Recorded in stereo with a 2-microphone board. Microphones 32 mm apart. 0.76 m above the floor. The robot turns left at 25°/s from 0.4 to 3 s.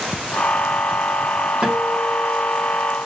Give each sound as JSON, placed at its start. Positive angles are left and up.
{"t": 1.6, "sound": "a guitar", "azimuth_deg": -145, "distance_m": 1.6}